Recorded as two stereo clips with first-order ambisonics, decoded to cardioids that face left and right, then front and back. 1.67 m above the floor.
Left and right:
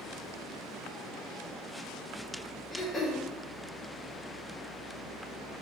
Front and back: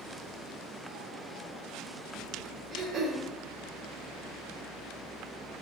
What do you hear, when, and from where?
2.7 s throat clearing: 150° left, 0.5 m